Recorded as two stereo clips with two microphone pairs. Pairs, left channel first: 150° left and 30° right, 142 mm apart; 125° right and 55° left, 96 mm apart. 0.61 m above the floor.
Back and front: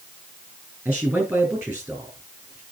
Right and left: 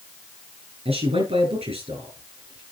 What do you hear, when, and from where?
0.8 s a man speaking: 50° left, 6 m